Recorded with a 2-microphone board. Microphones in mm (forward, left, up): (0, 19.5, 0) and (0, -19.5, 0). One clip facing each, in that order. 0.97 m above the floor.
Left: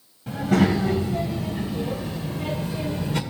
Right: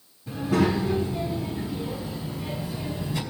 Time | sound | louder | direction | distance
0.3 | a child speaking | left 3 dB | 80° left | 3.5 m